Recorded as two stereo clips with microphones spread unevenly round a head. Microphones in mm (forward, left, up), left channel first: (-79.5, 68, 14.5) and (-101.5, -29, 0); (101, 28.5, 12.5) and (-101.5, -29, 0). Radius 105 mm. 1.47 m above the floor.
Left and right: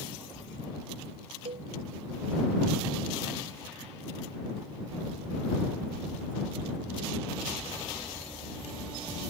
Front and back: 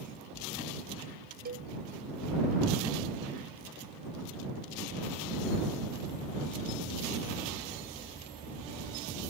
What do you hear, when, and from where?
1.4 s a cowbell: 115° right